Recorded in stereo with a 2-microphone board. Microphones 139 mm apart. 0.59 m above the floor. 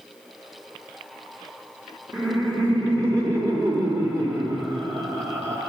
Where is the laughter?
20° right (ahead or behind), 1.0 m.